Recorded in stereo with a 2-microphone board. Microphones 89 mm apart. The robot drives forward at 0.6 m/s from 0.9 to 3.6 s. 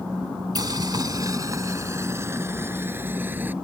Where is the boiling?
50° right (ahead or behind); by 3.5 s 20° right (ahead or behind).